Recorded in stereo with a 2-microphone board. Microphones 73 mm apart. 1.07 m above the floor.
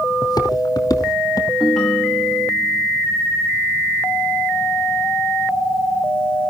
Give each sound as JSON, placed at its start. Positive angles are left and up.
{"t": 0.2, "sound": "footsteps", "side_deg": 60, "distance_m": 2.5}
{"t": 1.6, "sound": "a ringtone", "side_deg": 0, "distance_m": 2.0}